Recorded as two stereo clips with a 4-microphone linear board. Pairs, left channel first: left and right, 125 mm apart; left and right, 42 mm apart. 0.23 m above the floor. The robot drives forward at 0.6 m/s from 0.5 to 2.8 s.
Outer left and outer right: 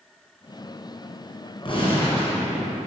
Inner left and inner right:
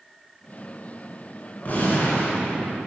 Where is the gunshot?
45° left (ahead or behind), 2.5 m; by 2.9 s 50° left (ahead or behind), 2 m.